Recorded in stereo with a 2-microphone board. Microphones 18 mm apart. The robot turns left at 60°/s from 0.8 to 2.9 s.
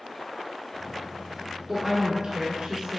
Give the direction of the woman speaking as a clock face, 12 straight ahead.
1 o'clock.